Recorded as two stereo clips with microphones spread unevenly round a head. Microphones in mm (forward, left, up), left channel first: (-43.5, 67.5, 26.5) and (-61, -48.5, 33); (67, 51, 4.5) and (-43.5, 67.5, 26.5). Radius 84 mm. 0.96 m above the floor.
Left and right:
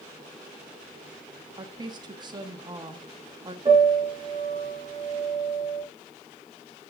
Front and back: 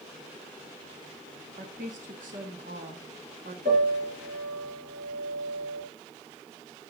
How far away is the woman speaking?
About 1.3 m.